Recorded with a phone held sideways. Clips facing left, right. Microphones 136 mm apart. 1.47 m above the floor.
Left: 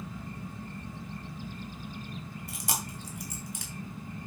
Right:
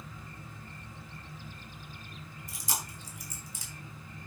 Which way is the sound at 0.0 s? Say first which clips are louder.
Left 7 dB; 65° left (ahead or behind).